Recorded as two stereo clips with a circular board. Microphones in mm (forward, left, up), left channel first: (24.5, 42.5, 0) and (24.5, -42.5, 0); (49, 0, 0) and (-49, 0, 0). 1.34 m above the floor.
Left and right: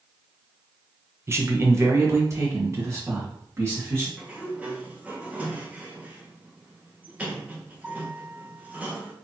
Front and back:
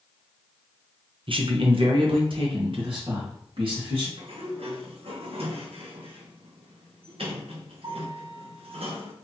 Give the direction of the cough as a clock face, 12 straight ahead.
No cough in this recording.